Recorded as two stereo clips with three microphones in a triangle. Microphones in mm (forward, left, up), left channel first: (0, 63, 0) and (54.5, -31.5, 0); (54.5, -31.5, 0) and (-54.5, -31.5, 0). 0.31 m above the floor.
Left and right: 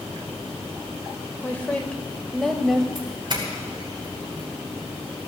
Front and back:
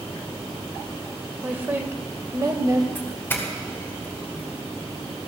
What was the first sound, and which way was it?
A woman speaking, 145° left.